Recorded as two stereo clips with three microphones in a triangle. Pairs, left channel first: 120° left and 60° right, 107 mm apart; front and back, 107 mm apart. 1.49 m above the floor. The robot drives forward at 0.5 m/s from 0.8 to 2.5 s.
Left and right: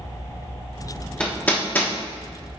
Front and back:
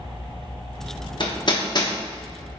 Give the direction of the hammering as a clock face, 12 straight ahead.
11 o'clock.